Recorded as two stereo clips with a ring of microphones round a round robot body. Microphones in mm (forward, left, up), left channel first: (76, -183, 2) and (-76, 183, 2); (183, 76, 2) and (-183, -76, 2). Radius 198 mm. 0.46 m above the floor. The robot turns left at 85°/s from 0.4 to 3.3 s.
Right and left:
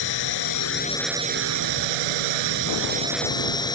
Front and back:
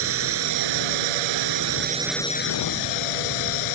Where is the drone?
100° right; by 3.8 s 15° left.